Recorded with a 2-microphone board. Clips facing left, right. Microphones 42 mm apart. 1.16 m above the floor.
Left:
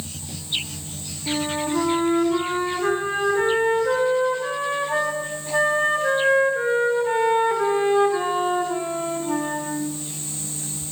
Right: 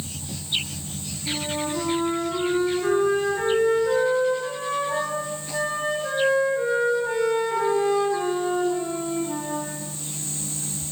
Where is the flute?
35° left (ahead or behind), 5 m.